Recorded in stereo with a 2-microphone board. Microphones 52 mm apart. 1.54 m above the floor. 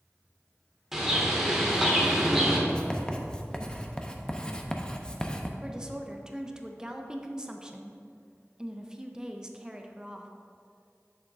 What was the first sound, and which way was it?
A bird, 10° right (ahead or behind).